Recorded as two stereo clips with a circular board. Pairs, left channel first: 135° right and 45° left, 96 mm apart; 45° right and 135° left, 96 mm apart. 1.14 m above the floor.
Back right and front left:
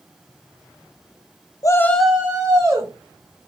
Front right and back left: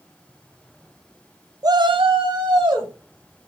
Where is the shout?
Straight behind, 0.5 m; by 2.9 s 95° left, 1.2 m.